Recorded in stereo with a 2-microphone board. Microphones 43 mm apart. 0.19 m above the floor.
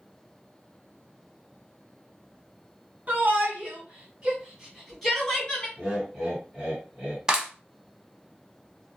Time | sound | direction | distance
3.1 | a shout | 40° right (ahead or behind) | 1.9 m
5.8 | laughter | 10° right (ahead or behind) | 2 m
7.3 | a clap | 20° right (ahead or behind) | 0.8 m